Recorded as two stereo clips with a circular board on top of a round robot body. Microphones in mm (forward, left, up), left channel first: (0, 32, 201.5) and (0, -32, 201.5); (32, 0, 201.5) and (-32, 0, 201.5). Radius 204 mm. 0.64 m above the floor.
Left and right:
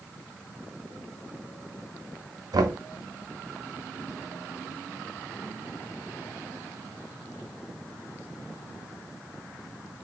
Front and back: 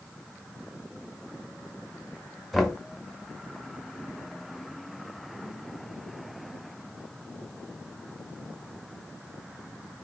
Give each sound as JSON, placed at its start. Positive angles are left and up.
{"t": 2.5, "sound": "knocking", "azimuth_deg": -90, "distance_m": 0.7}